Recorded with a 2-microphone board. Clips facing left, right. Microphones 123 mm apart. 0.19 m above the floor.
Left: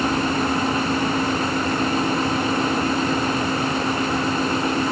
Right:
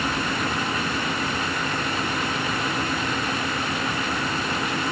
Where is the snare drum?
I don't hear a snare drum.